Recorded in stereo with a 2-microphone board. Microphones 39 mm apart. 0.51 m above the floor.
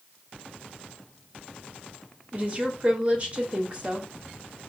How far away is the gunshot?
No gunshot in this recording.